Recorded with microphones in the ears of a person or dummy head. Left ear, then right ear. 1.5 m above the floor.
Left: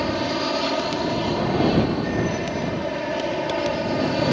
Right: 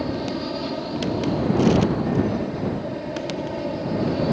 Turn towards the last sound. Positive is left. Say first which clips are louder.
# left 4 dB
turn(degrees=55)  # may be behind; listen again after turning